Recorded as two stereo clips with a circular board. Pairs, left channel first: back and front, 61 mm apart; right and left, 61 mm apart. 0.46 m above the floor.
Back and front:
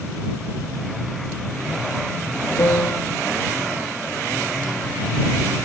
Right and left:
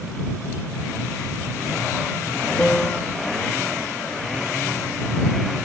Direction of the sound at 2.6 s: 165° right.